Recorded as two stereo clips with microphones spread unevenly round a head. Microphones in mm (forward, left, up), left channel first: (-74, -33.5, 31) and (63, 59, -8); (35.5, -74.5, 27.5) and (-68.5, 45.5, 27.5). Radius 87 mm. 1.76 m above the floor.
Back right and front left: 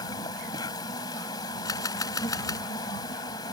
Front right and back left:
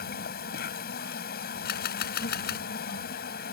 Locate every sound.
0.0 s an insect: 80° right
1.6 s a camera shutter: 75° right